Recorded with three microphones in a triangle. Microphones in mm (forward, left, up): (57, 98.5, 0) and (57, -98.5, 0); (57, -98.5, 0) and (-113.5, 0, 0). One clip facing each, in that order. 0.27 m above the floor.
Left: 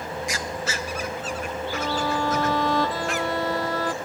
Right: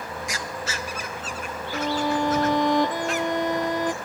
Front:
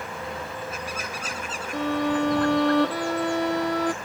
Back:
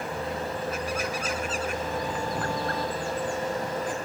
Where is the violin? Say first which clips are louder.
Right 3 dB, front 7 dB; 20° right.